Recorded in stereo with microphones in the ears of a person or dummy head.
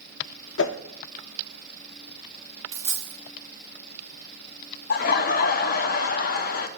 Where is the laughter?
55° left (ahead or behind), 0.7 m.